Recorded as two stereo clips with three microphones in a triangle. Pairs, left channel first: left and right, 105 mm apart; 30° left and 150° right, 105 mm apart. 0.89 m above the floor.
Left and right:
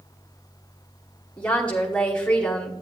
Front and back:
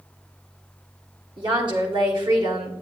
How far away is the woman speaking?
About 2 m.